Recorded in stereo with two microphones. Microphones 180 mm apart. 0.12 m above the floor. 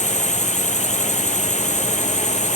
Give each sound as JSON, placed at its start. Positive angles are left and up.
{"t": 0.0, "sound": "a drone", "side_deg": 40}